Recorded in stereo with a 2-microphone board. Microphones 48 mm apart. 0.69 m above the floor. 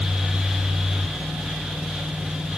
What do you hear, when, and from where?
Only background noise.